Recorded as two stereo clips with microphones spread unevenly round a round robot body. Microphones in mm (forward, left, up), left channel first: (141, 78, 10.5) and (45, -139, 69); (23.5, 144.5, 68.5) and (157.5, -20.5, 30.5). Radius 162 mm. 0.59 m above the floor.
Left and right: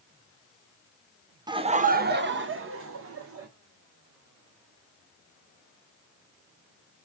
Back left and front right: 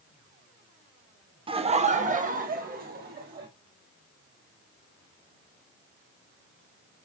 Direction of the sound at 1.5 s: 30° right.